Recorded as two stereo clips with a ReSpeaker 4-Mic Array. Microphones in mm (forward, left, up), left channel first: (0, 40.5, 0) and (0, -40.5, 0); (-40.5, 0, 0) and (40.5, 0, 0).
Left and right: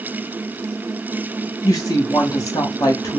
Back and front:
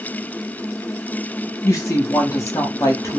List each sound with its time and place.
1.6 s a woman speaking: 130° left, 1.1 m